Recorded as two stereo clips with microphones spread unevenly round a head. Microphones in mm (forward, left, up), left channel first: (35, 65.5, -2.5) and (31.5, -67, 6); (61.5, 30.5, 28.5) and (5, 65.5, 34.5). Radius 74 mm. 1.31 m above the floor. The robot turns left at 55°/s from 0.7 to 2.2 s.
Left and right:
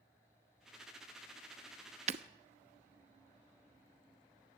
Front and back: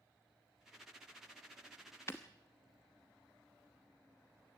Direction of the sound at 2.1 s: 105° right.